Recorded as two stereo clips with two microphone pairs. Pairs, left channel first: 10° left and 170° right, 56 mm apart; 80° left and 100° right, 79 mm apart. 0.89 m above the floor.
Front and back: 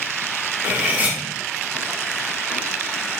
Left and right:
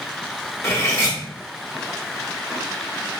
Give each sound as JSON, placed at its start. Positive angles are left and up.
{"t": 0.6, "sound": "cutlery clinking", "azimuth_deg": 130, "distance_m": 0.9}